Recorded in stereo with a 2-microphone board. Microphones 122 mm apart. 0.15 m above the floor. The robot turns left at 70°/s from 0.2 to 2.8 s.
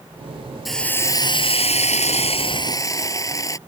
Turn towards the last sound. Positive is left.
turn(degrees=30)